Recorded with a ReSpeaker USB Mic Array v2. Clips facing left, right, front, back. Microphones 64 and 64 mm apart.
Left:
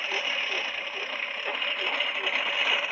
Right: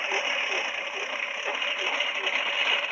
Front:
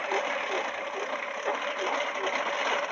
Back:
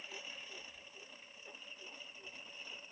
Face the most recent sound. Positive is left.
turn(degrees=0)